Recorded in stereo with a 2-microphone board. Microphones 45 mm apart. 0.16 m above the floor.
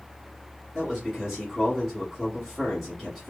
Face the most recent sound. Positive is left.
turn(degrees=5)  # may be behind; listen again after turning